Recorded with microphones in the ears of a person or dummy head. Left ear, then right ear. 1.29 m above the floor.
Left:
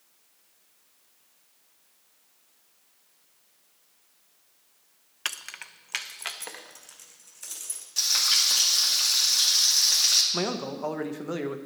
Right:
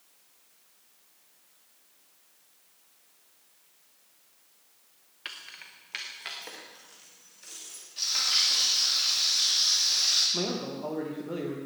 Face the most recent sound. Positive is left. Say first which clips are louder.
# left 2 dB
turn(degrees=50)  # may be behind; listen again after turning